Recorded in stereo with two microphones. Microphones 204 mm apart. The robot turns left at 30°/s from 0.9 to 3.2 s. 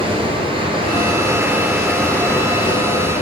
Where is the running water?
150° right, 3 m; by 3.2 s 140° left, 3 m.